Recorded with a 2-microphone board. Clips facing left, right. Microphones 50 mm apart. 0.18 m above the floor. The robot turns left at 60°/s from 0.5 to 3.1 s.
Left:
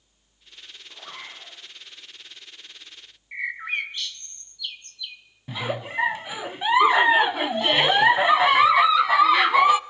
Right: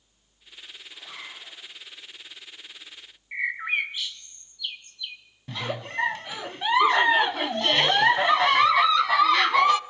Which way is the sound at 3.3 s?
10° right (ahead or behind).